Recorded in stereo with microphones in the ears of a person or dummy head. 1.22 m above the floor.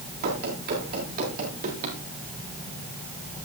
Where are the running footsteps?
55° right (ahead or behind), 8 m; by 2.0 s 50° right (ahead or behind), 9 m.